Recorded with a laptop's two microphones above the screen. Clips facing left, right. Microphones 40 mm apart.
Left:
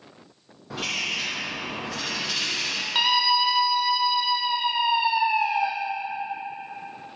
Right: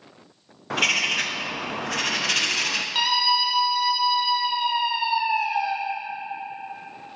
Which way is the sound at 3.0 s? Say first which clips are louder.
Left 2 dB; 15° left (ahead or behind).